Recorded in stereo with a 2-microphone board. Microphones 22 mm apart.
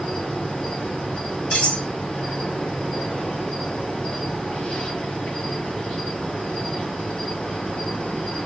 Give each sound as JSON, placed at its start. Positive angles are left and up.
{"t": 0.0, "sound": "an insect", "side_deg": 60, "distance_m": 4.0}
{"t": 1.5, "sound": "cutlery clinking", "side_deg": 50, "distance_m": 2.0}